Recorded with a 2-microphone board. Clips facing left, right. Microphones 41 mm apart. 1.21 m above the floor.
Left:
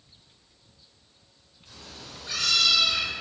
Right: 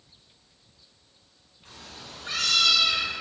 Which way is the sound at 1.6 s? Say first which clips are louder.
Right 1 dB; 55° right (ahead or behind).